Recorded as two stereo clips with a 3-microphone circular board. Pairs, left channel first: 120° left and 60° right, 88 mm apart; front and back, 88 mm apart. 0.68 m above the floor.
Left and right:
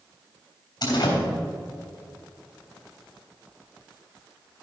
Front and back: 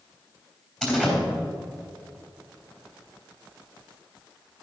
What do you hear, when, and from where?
0.8 s a door slam: 80° left, 3.5 m